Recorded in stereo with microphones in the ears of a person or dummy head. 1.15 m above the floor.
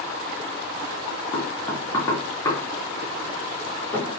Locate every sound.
1.3 s knocking: 15° left (ahead or behind), 1.2 m